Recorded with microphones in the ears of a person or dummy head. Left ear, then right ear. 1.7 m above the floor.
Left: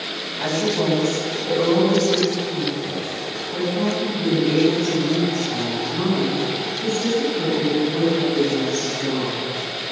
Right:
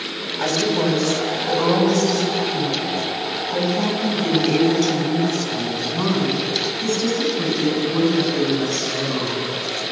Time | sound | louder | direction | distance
0.4 | a woman speaking | right 2 dB | 85° right | 9.5 m